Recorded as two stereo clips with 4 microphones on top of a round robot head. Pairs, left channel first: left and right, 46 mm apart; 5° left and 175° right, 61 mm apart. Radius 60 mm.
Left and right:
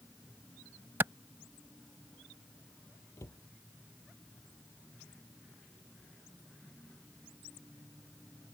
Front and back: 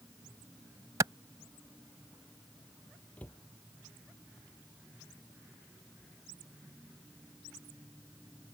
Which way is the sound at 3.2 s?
70° left.